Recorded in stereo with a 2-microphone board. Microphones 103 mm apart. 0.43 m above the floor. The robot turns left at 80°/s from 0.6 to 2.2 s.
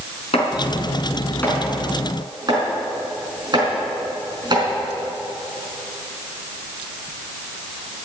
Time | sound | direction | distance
0.3 | chopping | 75° left (ahead or behind) | 4.5 m